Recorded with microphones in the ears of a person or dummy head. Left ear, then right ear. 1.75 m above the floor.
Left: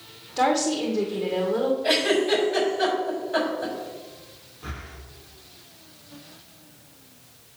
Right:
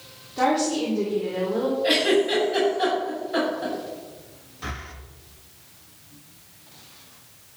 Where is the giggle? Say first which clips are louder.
Right 3 dB; centre (ahead or behind), 5 m.